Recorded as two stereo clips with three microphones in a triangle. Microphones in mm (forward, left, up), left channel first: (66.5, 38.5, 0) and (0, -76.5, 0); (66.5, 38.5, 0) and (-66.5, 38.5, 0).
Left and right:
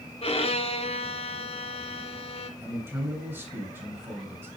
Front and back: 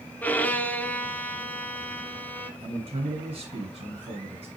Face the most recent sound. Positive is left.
turn(degrees=175)